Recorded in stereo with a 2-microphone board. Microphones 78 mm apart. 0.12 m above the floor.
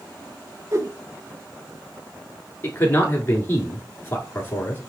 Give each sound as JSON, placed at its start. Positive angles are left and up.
{"t": 0.7, "sound": "a whoosh", "side_deg": -40, "distance_m": 0.5}
{"t": 2.6, "sound": "a man speaking", "side_deg": 30, "distance_m": 1.6}